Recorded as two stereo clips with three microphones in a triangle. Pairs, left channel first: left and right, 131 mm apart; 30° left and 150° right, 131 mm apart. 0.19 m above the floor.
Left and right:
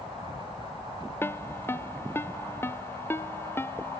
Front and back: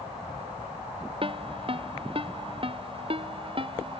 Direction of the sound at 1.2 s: 165° left.